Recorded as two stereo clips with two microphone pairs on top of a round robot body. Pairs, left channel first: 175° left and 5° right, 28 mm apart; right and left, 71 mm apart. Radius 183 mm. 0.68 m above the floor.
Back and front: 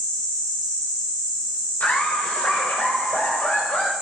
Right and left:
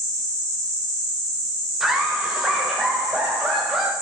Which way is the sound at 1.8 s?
175° left.